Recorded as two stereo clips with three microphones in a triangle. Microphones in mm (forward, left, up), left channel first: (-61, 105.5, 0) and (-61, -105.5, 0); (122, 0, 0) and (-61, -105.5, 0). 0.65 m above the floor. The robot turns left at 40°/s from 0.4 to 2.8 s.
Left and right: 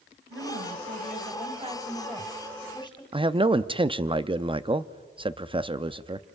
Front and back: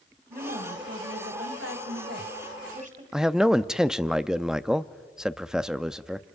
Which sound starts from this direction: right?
A woman speaking, at 0.3 s.